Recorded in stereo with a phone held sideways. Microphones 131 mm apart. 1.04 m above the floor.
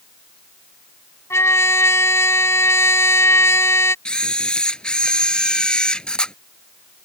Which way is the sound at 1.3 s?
20° left (ahead or behind).